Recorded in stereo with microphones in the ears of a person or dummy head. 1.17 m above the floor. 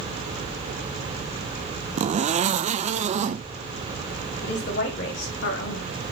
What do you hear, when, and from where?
2.0 s a zipper: 35° right (ahead or behind), 0.6 m
4.4 s a woman speaking: 60° left (ahead or behind), 2.5 m